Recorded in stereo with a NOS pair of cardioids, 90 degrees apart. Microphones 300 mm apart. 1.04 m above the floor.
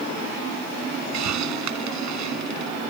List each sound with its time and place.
1.1 s a hiss: 65° right